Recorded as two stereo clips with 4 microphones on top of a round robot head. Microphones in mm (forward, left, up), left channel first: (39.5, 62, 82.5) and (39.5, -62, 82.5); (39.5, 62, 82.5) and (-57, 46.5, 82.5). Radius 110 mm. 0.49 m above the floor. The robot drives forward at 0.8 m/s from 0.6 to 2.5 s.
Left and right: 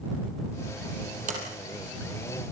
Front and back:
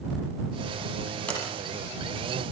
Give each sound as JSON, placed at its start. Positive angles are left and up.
{"t": 1.3, "sound": "a sliding door", "azimuth_deg": -70, "distance_m": 6.5}